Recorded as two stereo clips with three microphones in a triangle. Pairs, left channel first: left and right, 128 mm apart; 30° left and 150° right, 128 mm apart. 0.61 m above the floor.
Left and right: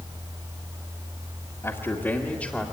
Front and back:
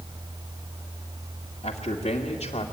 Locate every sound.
1.6 s a man speaking: 30° left, 1.7 m; by 2.6 s 5° left, 1.9 m